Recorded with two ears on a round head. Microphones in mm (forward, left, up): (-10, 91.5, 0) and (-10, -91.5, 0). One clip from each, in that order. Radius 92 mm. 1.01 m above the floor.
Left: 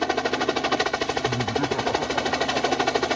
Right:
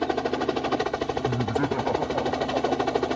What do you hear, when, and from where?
0.0 s a helicopter: 60° left (ahead or behind)
1.2 s laughter: 5° right (ahead or behind)